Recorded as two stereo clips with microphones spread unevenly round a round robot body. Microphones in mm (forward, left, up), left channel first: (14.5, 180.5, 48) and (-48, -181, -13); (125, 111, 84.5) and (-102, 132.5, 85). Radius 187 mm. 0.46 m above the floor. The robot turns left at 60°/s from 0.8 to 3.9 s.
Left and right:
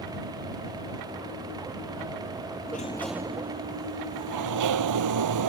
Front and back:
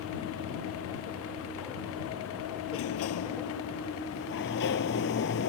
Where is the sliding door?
15° left; by 5.5 s 60° right.